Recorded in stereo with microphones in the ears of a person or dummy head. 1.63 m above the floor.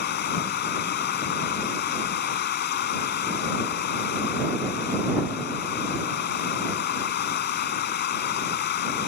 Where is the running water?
55° left (ahead or behind).